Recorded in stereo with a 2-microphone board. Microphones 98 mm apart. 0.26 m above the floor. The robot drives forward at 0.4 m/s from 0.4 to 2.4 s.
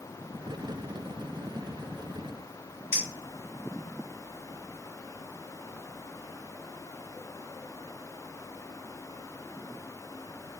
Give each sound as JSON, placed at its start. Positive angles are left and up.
{"t": 2.9, "sound": "a clink", "side_deg": -25, "distance_m": 1.2}